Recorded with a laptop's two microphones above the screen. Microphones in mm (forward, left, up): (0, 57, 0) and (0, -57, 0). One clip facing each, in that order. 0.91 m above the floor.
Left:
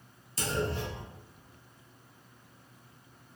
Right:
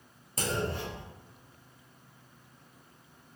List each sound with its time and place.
0.4 s a clunk: 45° right (ahead or behind), 1.0 m